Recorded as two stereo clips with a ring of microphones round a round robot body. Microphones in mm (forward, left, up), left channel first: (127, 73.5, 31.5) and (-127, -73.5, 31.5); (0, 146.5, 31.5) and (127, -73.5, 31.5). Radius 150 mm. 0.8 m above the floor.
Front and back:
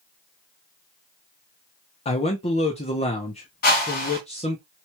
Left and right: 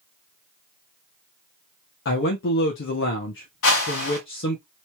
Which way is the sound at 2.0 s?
95° left.